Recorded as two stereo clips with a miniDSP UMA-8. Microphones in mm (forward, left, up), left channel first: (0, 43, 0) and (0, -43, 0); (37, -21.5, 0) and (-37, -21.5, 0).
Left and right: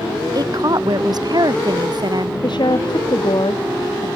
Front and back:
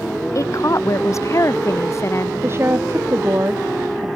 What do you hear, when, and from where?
0.3 s a woman speaking: 50° right; by 2.3 s 55° right
2.4 s a woman speaking: 120° left